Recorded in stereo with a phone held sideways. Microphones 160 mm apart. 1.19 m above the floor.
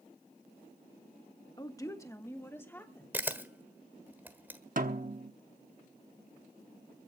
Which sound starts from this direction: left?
A woman speaking, at 1.6 s.